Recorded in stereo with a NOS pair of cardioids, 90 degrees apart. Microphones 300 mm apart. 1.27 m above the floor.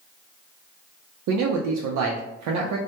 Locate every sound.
1.3 s a man speaking: 70° right, 0.5 m